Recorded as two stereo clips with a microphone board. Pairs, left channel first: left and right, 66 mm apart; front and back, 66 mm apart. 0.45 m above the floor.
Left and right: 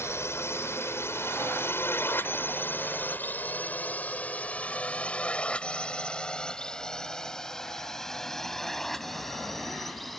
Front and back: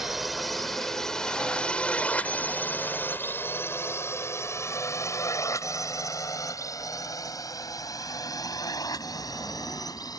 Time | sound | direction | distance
0.0 | a drone | 95° left | ?